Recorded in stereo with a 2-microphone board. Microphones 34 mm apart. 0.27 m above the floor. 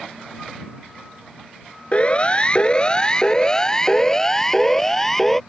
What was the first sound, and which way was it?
A siren, 35° left (ahead or behind).